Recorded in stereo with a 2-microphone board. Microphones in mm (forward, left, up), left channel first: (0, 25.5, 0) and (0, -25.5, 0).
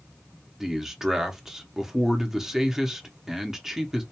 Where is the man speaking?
10° right (ahead or behind), 0.7 m.